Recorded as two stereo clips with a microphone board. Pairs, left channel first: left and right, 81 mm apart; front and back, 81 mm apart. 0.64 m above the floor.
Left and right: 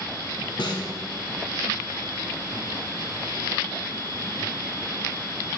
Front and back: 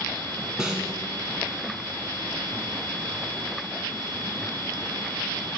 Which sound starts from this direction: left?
A snare drum, at 0.6 s.